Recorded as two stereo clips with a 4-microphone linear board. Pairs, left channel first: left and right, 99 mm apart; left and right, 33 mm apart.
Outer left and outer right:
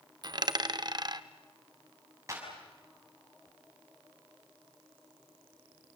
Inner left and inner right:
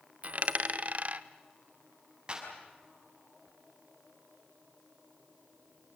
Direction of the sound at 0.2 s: 45° right (ahead or behind).